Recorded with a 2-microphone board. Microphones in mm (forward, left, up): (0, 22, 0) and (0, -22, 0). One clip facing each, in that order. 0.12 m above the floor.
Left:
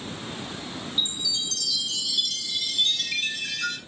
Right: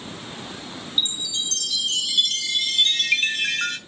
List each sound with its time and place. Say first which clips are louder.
1.0 s a chime: right 4 dB; 55° right (ahead or behind), 0.6 m